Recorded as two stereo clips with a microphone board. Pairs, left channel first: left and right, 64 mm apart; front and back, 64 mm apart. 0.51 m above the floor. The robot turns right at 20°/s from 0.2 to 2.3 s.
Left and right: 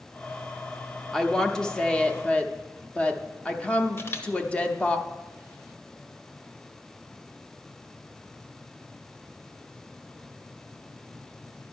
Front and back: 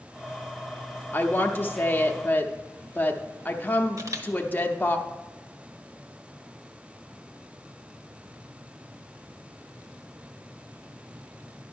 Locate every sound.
1.1 s a woman speaking: 10° left, 0.8 m; by 5.0 s 35° left, 0.8 m
4.0 s a camera shutter: 140° left, 1.0 m